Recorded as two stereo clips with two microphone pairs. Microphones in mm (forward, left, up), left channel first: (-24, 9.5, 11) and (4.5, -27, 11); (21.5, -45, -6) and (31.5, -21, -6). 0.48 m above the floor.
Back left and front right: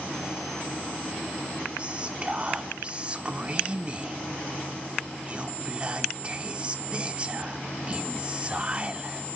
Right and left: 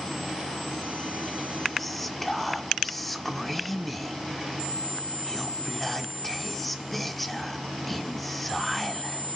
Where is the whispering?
35° right, 1.1 m.